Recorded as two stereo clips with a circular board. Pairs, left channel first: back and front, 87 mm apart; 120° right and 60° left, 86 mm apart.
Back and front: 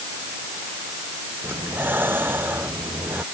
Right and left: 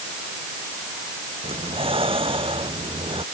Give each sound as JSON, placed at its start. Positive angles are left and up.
{"t": 1.4, "sound": "breathing", "azimuth_deg": 70}